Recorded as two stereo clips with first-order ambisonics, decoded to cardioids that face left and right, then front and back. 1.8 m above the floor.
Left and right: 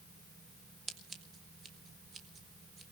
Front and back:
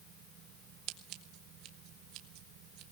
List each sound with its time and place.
0.9 s scissors: 160° right, 1.7 m